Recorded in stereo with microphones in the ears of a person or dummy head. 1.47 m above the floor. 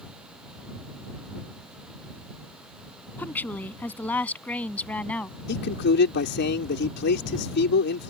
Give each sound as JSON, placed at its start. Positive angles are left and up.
{"t": 3.2, "sound": "a woman speaking", "side_deg": 10}
{"t": 5.5, "sound": "a man speaking", "side_deg": 55}